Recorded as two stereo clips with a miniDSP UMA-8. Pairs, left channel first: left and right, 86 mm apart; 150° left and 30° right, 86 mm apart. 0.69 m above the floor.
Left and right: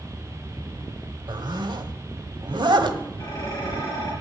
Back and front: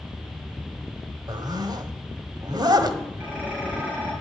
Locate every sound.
1.3 s a zipper: 65° right, 1.3 m
3.2 s dishes clattering: 40° left, 9 m